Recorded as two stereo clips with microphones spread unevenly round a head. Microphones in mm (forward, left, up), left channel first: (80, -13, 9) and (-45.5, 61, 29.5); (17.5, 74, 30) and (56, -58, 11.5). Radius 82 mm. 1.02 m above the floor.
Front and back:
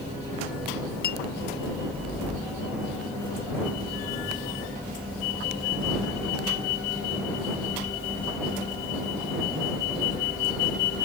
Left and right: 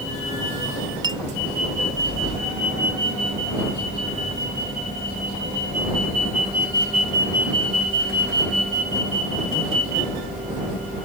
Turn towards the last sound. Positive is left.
turn(degrees=-15)